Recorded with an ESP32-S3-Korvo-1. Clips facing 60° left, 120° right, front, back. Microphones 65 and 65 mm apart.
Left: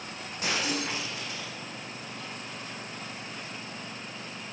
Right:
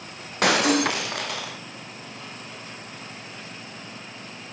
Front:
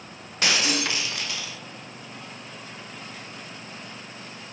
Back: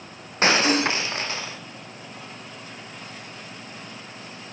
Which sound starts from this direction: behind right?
Breaking glass, at 0.4 s.